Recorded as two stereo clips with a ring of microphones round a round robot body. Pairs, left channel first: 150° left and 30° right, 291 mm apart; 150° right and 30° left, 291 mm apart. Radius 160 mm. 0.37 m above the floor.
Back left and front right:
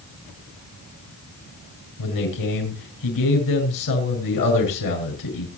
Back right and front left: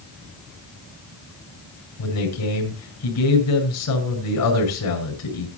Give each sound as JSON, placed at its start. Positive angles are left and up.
{"t": 2.0, "sound": "a man speaking", "azimuth_deg": 175, "distance_m": 6.0}